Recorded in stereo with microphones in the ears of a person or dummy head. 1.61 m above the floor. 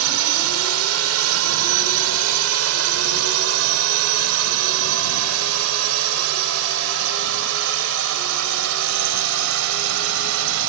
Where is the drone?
85° right; by 10.7 s 70° right (ahead or behind).